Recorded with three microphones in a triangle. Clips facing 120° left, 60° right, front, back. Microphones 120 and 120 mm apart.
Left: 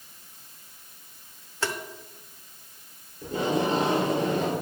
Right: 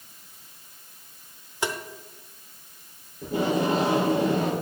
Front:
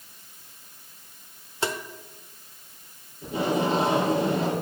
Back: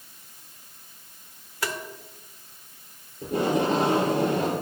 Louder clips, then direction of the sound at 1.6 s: Right 1 dB, front 3 dB; 10° right.